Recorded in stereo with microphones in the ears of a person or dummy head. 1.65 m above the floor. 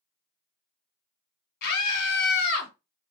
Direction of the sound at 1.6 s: 60° left (ahead or behind).